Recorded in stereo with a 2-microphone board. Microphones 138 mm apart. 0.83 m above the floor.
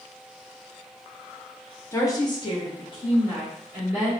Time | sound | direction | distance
1.9 | a woman speaking | 20° left (ahead or behind) | 0.6 m